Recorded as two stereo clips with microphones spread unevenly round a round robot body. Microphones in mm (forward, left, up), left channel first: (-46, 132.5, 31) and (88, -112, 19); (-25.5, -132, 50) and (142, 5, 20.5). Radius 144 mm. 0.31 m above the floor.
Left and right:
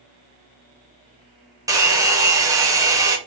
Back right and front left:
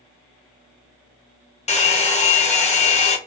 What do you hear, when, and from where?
1.7 s a hair dryer: 115° right, 0.9 m